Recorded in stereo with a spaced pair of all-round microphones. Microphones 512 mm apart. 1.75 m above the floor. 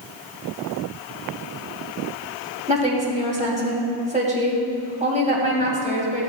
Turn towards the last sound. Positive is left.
turn(degrees=-15)  # may be behind; listen again after turning